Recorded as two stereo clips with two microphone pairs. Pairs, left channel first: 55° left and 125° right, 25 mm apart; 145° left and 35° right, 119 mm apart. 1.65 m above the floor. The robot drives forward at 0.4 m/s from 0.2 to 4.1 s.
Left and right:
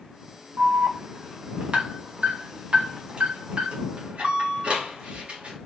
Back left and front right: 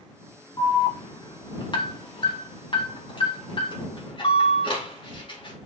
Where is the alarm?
165° right, 2 m; by 5.6 s 170° right, 3.5 m.